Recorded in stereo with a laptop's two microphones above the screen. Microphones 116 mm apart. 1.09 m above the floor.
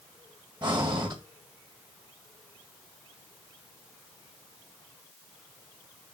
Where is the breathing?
40° right (ahead or behind), 1.7 m.